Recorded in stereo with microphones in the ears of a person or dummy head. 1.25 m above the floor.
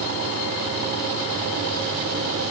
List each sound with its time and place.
Only background noise.